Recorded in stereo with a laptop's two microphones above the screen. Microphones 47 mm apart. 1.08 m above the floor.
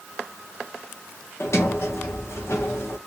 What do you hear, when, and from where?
1.4 s a sliding door: 65° left (ahead or behind), 0.6 m